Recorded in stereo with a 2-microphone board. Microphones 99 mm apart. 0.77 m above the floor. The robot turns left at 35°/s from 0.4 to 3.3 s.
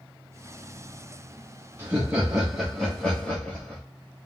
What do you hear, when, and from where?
1.8 s laughter: 150° right, 0.8 m; by 3.8 s 155° left, 0.8 m